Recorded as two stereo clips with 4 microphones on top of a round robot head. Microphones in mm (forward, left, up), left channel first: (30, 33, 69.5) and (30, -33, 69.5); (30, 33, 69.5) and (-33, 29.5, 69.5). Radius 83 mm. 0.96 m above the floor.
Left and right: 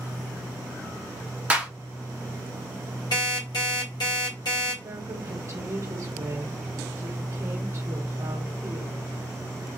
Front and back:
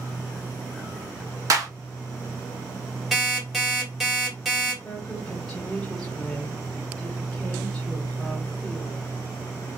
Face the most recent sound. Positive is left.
turn(degrees=-85)